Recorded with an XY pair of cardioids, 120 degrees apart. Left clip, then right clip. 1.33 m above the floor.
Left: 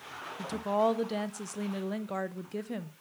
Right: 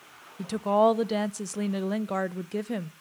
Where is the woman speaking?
35° right, 0.6 m.